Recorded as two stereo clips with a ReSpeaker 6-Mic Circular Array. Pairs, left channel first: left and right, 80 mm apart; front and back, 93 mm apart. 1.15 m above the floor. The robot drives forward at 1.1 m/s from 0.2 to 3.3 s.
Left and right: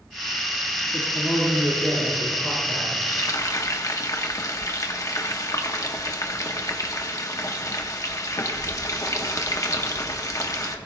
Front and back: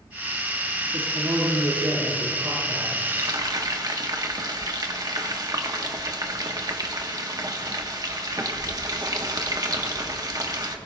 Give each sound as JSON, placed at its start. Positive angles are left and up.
{"t": 0.9, "sound": "a man speaking", "azimuth_deg": 155, "distance_m": 1.7}
{"t": 3.0, "sound": "frying", "azimuth_deg": 120, "distance_m": 1.0}